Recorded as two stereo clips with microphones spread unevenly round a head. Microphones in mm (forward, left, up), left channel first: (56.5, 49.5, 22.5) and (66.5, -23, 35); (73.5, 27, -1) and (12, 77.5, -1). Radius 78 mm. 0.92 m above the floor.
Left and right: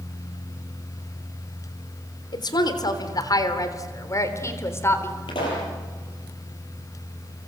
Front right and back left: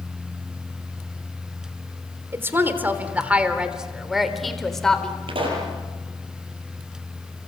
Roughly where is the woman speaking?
Left.